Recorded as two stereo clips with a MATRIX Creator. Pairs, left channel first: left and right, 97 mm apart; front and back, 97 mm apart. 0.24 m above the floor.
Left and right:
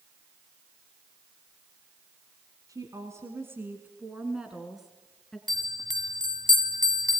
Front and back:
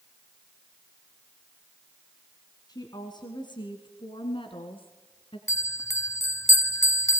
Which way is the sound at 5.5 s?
55° right.